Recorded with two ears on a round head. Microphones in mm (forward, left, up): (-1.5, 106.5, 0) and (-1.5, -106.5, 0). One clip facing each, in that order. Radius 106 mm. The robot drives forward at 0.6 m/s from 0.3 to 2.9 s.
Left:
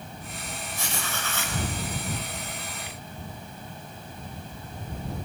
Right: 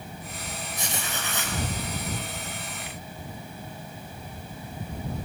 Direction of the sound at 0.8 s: 15° right (ahead or behind).